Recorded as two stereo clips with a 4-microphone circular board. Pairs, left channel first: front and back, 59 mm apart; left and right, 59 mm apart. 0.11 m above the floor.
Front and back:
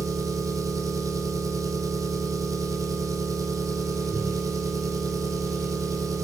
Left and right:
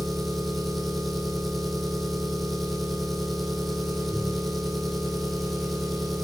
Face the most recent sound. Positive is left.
turn(degrees=180)